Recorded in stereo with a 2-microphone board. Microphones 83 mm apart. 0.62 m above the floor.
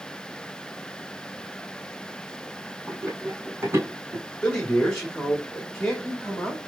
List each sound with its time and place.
2.9 s running footsteps: 20° right (ahead or behind), 1.9 m; by 4.2 s 40° right (ahead or behind), 2 m
4.4 s a man speaking: 10° left (ahead or behind), 1.4 m